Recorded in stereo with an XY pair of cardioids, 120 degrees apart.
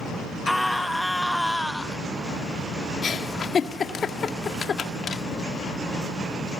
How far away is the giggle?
About 1.8 m.